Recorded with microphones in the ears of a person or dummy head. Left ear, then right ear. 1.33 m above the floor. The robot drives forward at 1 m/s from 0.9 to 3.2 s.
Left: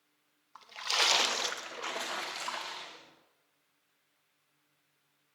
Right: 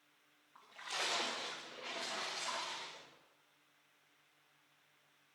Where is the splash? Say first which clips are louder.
Left 11 dB; 45° left (ahead or behind), 0.7 m; by 3.0 s 20° left (ahead or behind), 1.7 m.